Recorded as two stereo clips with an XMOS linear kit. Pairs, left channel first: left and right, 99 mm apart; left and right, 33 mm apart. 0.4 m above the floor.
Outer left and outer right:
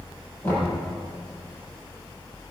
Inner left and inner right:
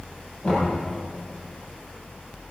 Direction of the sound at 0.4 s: 25° left (ahead or behind).